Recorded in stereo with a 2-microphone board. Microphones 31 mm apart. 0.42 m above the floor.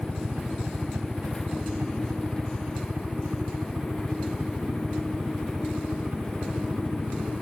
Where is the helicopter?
55° right (ahead or behind); by 7.4 s 70° right (ahead or behind).